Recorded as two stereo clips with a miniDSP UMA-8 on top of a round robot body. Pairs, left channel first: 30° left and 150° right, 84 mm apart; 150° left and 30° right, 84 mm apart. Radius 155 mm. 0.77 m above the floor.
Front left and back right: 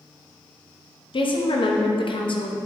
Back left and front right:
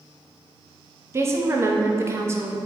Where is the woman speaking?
25° left, 0.9 m.